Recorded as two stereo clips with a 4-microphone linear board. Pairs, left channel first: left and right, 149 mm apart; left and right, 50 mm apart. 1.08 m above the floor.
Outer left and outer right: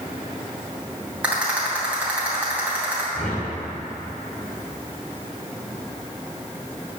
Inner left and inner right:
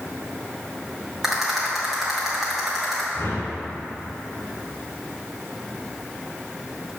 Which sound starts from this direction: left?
A whoosh, at 3.1 s.